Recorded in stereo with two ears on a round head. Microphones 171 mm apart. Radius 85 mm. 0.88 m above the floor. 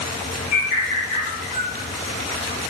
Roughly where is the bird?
Left.